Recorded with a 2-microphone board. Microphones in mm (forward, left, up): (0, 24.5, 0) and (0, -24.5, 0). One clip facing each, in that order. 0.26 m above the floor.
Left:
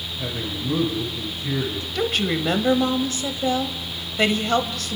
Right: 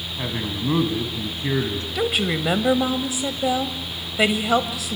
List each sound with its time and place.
0.2 s a man speaking: 45° right (ahead or behind), 2.5 m
1.9 s a woman speaking: 10° right (ahead or behind), 1.1 m